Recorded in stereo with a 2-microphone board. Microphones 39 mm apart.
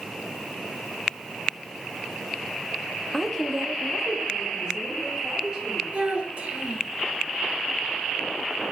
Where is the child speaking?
40° right (ahead or behind), 1.2 m.